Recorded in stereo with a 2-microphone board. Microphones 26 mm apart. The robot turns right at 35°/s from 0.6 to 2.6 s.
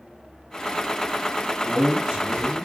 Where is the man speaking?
140° right, 2 m; by 2.7 s 105° right, 2 m.